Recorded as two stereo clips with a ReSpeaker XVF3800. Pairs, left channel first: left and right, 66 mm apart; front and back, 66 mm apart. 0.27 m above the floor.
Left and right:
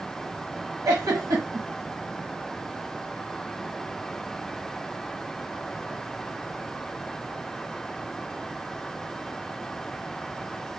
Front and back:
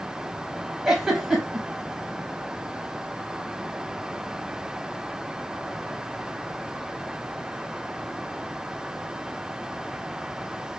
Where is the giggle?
100° right, 1.0 m.